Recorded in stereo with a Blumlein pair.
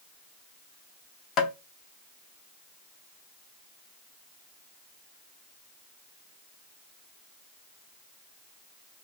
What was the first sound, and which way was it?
Tapping, 30° left.